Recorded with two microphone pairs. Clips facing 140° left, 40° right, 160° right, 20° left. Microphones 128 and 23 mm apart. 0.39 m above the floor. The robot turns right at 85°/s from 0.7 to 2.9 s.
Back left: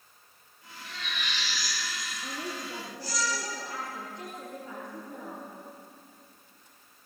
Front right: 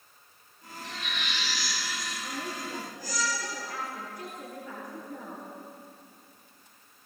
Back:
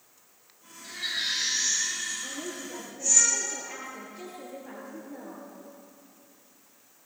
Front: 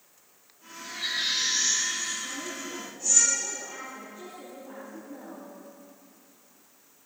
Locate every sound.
0.8 s a baby crying: 50° right, 9.5 m; by 3.2 s 125° left, 9.5 m
2.2 s a woman speaking: 150° left, 7 m; by 5.4 s 155° right, 7 m